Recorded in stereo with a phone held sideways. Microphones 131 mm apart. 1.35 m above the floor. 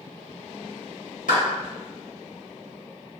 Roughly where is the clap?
Left.